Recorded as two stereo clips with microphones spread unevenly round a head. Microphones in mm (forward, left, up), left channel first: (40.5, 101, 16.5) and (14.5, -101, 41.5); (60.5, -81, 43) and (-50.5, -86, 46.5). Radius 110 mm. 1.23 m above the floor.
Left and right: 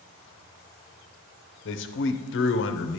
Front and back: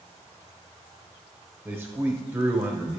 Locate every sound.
1.6 s a man speaking: 105° left, 0.6 m